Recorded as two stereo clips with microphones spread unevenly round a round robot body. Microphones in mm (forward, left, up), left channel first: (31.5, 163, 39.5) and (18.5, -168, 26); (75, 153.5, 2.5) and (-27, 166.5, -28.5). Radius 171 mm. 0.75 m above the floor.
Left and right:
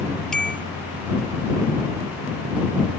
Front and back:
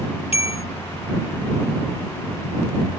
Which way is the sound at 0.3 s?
Straight ahead.